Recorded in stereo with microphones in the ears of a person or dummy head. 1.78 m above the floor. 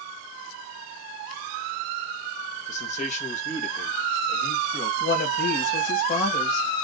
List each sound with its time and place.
2.7 s a man speaking: 45° left (ahead or behind), 1.6 m; by 4.9 s 55° left (ahead or behind), 2.5 m
5.0 s a woman speaking: 55° left (ahead or behind), 2.5 m